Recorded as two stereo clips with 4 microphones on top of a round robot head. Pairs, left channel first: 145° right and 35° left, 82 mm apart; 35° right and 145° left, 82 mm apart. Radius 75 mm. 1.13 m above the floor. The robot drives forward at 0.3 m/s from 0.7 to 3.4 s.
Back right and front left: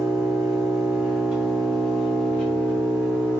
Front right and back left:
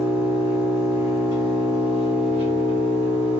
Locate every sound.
0.0 s an engine running: 85° left, 0.8 m; by 3.4 s 155° left, 1.1 m